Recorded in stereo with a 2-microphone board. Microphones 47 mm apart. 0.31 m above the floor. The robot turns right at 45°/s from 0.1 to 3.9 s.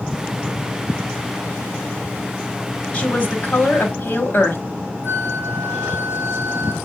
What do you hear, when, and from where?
2.9 s a woman speaking: 30° left, 1.4 m; by 4.6 s 75° left, 1.4 m
5.0 s a flute: 65° left (ahead or behind), 0.8 m